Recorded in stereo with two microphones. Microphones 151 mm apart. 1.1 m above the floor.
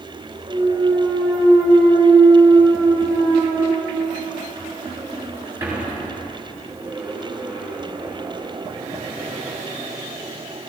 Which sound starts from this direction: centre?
A clunk, at 0.5 s.